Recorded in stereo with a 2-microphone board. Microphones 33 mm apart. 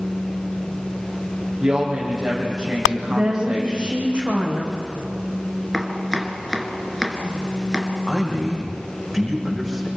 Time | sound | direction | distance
1.6 | a woman speaking | 25° right (ahead or behind) | 6.5 m
3.1 | a woman speaking | 35° right (ahead or behind) | 6 m
5.7 | chopping | 5° left (ahead or behind) | 2 m
8.1 | a man speaking | 10° left (ahead or behind) | 6 m